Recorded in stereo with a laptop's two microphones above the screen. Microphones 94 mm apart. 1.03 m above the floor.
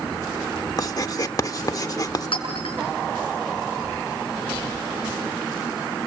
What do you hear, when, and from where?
0.8 s writing: 40° left (ahead or behind), 0.8 m
2.3 s a clink: 75° left (ahead or behind), 6 m